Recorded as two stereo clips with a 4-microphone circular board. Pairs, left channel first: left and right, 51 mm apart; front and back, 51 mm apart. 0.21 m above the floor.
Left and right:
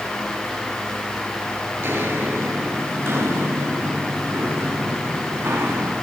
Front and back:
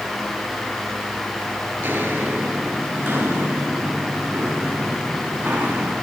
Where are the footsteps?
130° right, 8 m; by 5.9 s 120° right, 10 m.